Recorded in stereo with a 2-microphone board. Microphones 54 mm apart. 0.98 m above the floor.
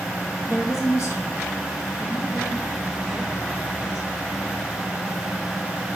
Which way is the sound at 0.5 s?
60° left (ahead or behind).